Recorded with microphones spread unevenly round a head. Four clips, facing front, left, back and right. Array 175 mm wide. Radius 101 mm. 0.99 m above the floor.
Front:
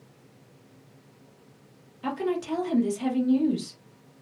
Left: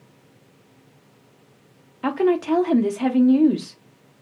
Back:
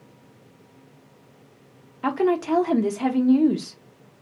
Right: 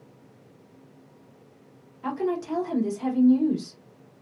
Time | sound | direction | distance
2.0 | a woman speaking | 130° left | 1.0 m